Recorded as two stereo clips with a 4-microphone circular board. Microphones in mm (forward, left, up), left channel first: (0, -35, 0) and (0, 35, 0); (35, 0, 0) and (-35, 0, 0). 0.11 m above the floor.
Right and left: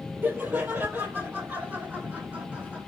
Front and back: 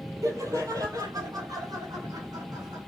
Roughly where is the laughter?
Behind left.